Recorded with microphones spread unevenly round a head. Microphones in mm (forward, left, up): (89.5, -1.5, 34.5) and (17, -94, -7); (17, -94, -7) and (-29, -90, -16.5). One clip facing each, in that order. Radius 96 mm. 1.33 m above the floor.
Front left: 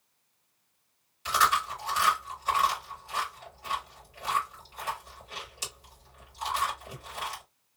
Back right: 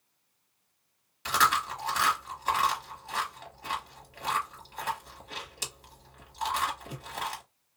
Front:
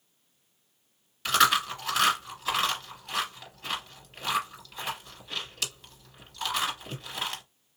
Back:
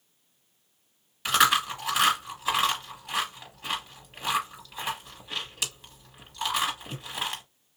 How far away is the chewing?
About 2 m.